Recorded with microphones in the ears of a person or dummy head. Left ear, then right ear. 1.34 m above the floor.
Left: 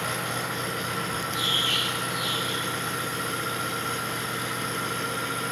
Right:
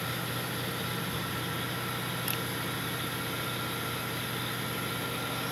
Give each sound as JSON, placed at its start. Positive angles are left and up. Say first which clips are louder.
{"t": 0.0, "sound": "an engine running", "louder": "left 6 dB", "side_deg": 50}